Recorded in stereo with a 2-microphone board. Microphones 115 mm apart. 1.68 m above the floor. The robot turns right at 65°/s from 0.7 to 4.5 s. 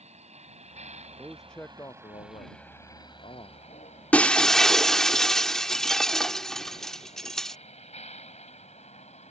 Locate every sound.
0.0 s a vehicle: 80° right; by 9.3 s 85° left
1.2 s a man speaking: 15° right; by 3.6 s 145° left
4.1 s breaking glass: 15° left (ahead or behind); by 7.6 s 5° left (ahead or behind)